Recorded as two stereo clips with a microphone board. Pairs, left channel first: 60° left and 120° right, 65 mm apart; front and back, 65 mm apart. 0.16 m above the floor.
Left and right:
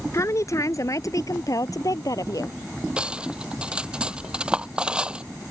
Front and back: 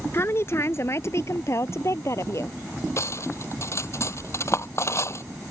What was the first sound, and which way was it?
A woman speaking, 35° left.